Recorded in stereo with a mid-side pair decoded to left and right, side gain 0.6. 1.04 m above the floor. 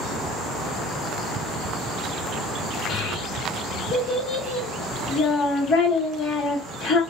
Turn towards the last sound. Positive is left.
turn(degrees=40)